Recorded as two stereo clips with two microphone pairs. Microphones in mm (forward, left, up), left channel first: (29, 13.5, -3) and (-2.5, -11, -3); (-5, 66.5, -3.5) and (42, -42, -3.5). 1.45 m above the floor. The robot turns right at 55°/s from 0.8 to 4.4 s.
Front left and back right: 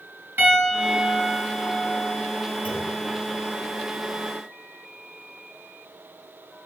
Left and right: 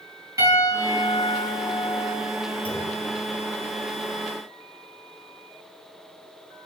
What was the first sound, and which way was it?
A piano, 125° right.